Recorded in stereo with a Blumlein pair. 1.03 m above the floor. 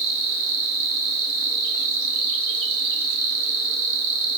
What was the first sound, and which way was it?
An insect, 45° right.